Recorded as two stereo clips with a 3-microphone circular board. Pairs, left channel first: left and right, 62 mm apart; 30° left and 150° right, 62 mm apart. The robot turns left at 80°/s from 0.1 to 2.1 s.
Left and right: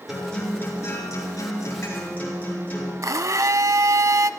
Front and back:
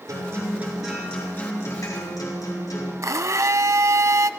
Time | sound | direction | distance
0.1 | a guitar | 175° right | 7 m
3.0 | a blender | 120° right | 0.5 m